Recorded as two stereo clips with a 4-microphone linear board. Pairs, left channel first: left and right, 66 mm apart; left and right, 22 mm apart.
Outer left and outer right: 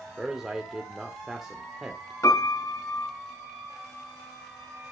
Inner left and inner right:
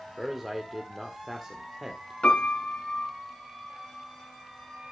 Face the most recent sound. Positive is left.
turn(degrees=55)  # may be behind; listen again after turning